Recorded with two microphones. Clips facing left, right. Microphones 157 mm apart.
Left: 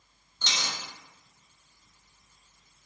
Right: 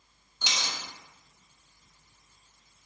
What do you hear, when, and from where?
0.4 s a dropped coin: 10° right (ahead or behind), 0.7 m